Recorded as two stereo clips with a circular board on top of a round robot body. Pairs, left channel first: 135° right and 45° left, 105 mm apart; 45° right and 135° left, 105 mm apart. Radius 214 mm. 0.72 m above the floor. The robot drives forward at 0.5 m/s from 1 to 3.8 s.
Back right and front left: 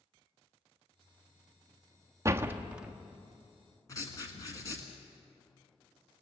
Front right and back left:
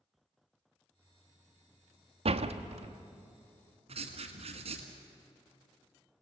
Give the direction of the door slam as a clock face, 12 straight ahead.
8 o'clock.